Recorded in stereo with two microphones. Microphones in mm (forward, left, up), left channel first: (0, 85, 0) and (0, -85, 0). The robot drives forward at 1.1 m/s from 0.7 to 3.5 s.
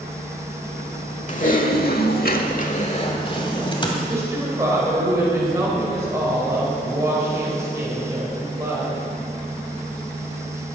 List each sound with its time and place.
1.3 s typing on a keyboard: 45° left (ahead or behind), 1.3 m; by 4.0 s 30° left (ahead or behind), 1.9 m
4.1 s a woman speaking: 15° right (ahead or behind), 4 m